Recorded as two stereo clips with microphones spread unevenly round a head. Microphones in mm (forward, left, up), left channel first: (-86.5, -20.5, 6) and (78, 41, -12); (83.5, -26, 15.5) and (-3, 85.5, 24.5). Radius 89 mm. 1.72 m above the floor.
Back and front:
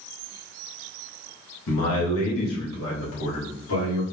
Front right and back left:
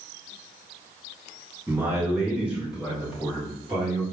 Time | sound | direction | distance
1.7 | a man speaking | 155° right | 0.9 m